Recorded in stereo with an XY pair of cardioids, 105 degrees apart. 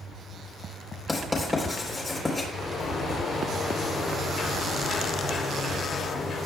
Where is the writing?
25° left, 3.5 m.